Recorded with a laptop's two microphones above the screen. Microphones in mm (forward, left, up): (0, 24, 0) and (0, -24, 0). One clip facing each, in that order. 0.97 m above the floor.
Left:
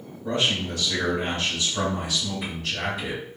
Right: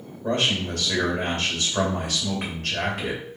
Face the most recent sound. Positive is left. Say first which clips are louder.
# right 1 dB
turn(degrees=-55)  # may be behind; listen again after turning